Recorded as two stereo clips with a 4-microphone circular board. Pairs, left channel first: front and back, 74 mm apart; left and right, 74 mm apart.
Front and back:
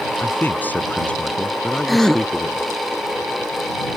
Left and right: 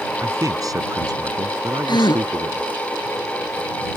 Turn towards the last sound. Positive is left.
turn(degrees=90)